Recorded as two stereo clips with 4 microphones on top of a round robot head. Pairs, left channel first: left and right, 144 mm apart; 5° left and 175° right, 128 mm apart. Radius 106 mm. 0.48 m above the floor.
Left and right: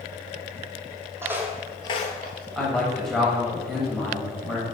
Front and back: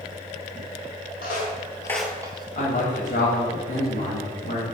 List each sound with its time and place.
1.2 s footsteps: 15° right, 1.2 m; by 2.5 s 135° left, 1.0 m
2.5 s a man speaking: 5° left, 2.5 m